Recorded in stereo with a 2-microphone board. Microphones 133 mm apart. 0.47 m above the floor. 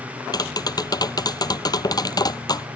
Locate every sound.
0.3 s tapping: 30° left (ahead or behind)